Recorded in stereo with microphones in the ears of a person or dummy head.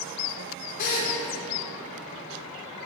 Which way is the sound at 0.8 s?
50° left (ahead or behind).